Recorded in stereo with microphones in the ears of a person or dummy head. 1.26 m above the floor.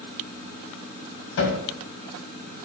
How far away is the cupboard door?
About 2 m.